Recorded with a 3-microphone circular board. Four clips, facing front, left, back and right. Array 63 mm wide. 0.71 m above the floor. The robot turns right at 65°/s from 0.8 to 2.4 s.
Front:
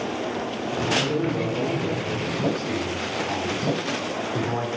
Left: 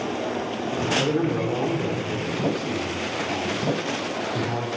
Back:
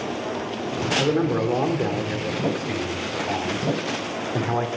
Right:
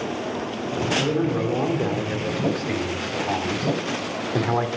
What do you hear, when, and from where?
1.0 s a man speaking: 165° left, 2.5 m; by 4.7 s 105° right, 2.5 m